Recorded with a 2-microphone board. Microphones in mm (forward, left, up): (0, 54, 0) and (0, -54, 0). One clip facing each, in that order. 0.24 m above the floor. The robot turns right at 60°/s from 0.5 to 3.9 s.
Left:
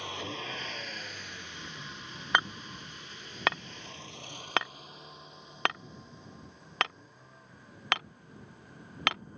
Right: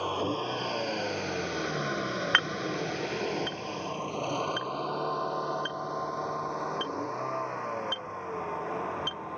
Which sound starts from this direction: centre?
Hammering, at 2.3 s.